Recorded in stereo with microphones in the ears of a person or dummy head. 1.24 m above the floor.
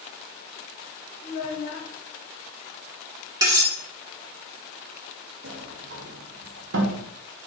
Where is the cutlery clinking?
20° right (ahead or behind), 1.5 m.